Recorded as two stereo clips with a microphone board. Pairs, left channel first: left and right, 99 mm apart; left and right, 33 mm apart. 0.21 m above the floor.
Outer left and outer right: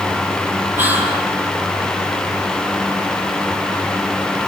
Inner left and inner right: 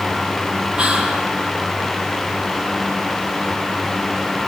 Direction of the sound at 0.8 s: 20° right (ahead or behind).